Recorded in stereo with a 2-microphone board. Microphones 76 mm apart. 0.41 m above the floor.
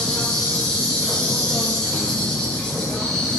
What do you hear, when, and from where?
0.0 s an insect: 10° left (ahead or behind), 2.5 m